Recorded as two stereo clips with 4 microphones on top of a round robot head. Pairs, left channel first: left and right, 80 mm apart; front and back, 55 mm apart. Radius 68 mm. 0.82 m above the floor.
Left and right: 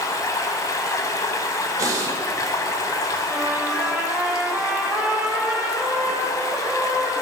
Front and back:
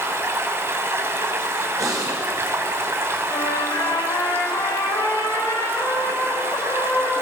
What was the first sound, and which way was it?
Running water, 140° left.